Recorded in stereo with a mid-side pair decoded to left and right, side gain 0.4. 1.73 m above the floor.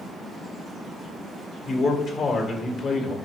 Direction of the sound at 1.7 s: 55° left.